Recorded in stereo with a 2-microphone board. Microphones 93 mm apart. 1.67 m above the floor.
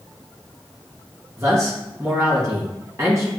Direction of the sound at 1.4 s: 30° right (ahead or behind).